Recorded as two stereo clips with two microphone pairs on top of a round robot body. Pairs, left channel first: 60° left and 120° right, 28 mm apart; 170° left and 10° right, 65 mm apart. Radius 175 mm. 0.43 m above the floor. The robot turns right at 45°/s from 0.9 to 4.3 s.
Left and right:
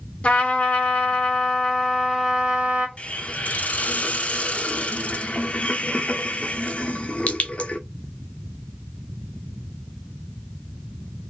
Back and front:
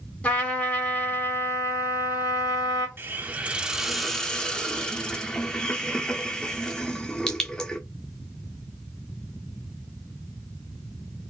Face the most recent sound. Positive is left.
turn(degrees=90)